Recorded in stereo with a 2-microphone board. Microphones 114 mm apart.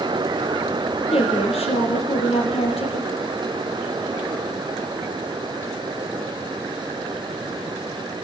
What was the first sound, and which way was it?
A woman speaking, 60° left (ahead or behind).